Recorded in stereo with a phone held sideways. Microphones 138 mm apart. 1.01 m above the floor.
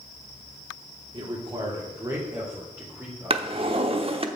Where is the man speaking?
40° right (ahead or behind), 2.0 m; by 4.0 s 10° right (ahead or behind), 3 m.